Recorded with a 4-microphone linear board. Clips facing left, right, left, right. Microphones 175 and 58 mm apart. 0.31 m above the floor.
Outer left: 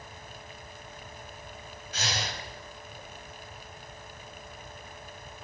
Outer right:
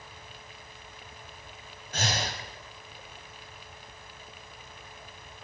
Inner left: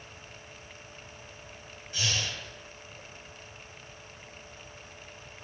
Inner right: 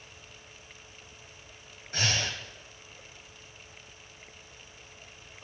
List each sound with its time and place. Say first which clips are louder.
1.9 s breathing: outer right 3 dB, inner right 2 dB; 50° right (ahead or behind), 1.2 m